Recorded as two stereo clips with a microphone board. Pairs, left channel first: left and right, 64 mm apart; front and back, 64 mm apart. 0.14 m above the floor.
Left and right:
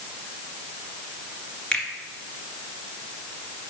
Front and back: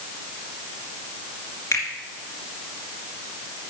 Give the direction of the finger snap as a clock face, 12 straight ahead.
11 o'clock.